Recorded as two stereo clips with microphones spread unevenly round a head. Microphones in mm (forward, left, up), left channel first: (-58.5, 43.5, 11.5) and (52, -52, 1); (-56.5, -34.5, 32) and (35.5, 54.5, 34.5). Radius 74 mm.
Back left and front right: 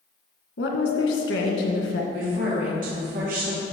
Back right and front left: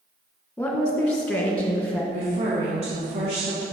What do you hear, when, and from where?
0.6 s a woman speaking: 140° left, 2.0 m
2.1 s a woman speaking: 5° right, 1.9 m